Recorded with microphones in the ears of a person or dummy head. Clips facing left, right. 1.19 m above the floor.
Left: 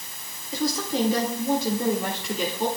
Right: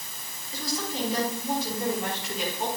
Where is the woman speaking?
55° left (ahead or behind), 3 m; by 2.7 s 85° left, 3 m.